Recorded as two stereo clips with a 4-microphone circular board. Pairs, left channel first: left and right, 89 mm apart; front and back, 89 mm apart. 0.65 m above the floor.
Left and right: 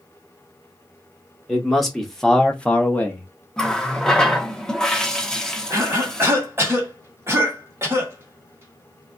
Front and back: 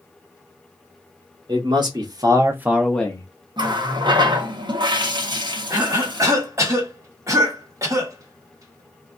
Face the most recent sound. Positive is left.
turn(degrees=-140)